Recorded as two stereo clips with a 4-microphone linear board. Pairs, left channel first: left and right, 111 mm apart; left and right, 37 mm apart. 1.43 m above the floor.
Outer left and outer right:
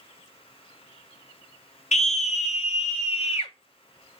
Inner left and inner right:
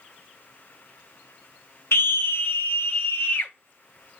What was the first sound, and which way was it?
A scream, 80° left.